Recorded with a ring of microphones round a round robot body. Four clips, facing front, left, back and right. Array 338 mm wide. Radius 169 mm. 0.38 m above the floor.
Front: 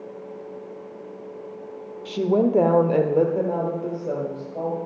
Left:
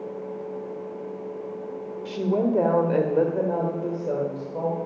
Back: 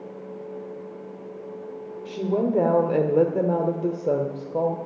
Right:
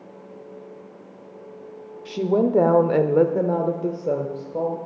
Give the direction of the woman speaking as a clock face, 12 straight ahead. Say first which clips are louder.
Right 3 dB, front 4 dB; 1 o'clock.